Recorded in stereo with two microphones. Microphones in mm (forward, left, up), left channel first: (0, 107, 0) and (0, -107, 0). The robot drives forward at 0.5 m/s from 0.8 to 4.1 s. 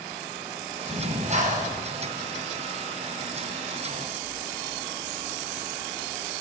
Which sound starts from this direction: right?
Breathing, at 0.9 s.